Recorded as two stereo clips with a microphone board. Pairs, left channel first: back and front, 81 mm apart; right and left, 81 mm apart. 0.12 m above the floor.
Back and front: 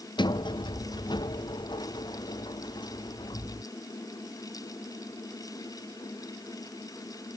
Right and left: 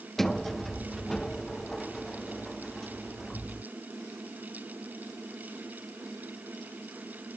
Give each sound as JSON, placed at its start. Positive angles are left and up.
{"t": 0.2, "sound": "a sliding door", "azimuth_deg": -175}